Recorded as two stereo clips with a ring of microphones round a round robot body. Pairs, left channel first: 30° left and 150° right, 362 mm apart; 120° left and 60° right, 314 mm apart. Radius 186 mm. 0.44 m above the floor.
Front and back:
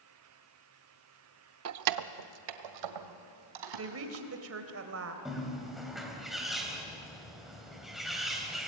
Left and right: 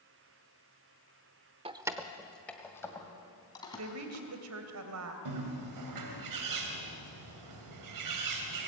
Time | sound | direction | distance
1.6 | keys jangling | 125° right | 0.6 m
3.8 | a woman speaking | 100° right | 2.5 m
5.2 | a bird | 60° right | 2.5 m